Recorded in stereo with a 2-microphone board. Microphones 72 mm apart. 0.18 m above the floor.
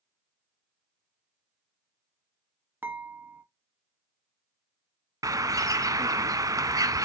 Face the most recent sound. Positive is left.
turn(degrees=-55)  # may be behind; listen again after turning